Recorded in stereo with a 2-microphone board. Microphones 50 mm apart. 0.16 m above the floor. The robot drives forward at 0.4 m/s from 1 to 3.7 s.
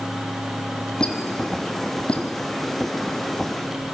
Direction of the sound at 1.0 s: 20° left (ahead or behind).